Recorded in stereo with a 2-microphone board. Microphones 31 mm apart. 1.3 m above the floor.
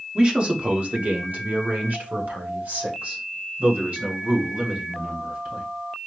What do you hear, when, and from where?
0.1 s a man speaking: 30° right (ahead or behind), 0.8 m; by 5.6 s 50° right (ahead or behind), 3 m